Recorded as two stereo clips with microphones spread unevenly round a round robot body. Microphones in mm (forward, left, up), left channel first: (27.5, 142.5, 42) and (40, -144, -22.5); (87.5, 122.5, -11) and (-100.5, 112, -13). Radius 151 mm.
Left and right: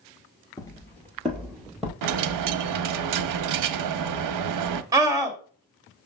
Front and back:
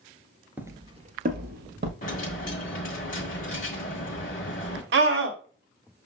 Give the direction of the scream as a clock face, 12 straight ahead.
5 o'clock.